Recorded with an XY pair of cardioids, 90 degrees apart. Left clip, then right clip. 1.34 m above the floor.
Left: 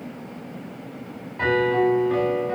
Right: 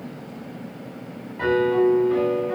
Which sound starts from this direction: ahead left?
A piano, at 1.4 s.